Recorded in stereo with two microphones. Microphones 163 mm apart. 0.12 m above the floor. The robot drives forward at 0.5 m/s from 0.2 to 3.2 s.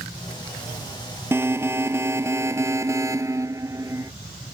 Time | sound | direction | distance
1.3 | an alarm | 15° right (ahead or behind) | ?